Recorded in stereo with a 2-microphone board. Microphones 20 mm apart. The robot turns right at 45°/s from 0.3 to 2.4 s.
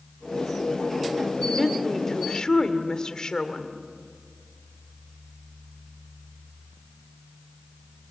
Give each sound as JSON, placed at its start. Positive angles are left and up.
{"t": 1.4, "sound": "a woman speaking", "azimuth_deg": 5, "distance_m": 1.9}